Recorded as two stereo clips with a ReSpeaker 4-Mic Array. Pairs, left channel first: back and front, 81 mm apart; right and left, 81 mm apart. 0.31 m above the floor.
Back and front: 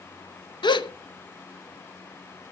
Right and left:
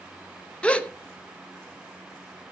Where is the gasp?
165° right, 0.7 m.